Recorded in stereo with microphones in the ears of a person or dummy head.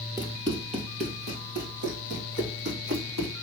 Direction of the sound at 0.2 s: 10° right (ahead or behind).